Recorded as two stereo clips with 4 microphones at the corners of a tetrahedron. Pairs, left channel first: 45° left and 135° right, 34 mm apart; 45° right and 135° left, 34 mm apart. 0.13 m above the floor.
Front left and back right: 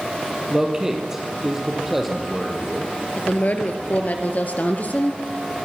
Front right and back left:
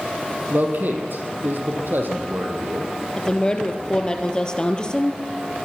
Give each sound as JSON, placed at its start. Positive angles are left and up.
{"t": 0.5, "sound": "a man speaking", "azimuth_deg": 155, "distance_m": 4.0}
{"t": 3.2, "sound": "a woman speaking", "azimuth_deg": 15, "distance_m": 2.5}